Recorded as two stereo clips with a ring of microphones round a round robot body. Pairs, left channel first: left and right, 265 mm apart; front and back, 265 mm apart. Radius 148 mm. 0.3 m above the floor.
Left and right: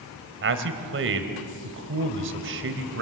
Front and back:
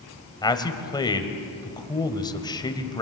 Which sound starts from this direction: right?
A man speaking, at 0.4 s.